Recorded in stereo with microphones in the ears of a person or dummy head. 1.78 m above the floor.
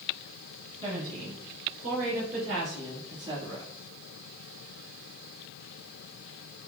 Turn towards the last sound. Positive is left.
turn(degrees=-25)  # may be behind; listen again after turning